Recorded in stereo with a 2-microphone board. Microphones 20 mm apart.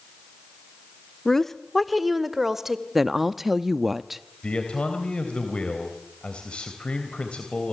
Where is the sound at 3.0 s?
10° right (ahead or behind), 0.6 m.